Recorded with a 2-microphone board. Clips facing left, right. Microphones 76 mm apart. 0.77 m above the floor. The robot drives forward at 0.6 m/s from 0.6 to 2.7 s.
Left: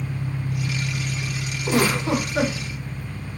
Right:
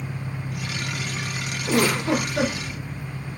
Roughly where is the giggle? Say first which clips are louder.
Even; left.